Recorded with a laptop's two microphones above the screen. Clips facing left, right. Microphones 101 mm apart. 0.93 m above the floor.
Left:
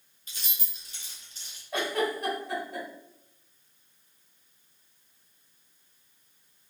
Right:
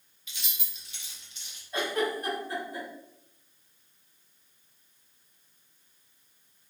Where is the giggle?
70° left (ahead or behind), 2.0 m.